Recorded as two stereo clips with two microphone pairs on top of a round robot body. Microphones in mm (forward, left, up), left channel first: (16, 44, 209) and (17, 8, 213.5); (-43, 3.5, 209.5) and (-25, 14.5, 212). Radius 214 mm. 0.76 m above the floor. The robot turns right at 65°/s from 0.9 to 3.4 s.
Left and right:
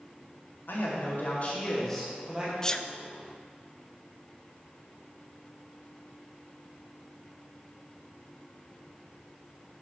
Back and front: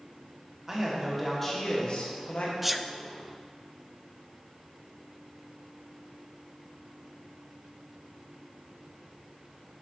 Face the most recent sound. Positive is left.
turn(degrees=175)